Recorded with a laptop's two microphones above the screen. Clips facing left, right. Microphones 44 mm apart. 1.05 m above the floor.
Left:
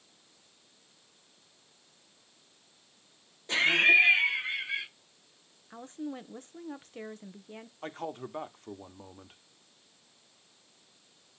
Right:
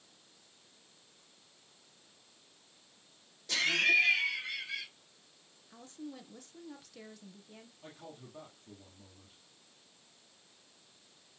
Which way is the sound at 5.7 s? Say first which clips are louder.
Left 7 dB; 35° left (ahead or behind).